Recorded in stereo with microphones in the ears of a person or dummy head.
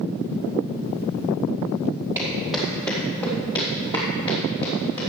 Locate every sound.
2.1 s footsteps: 10° right (ahead or behind), 1.8 m; by 5.0 s 35° left (ahead or behind), 5 m